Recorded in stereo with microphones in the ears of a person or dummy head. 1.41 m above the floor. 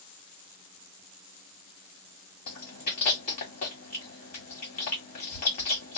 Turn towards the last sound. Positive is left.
turn(degrees=45)  # may be behind; listen again after turning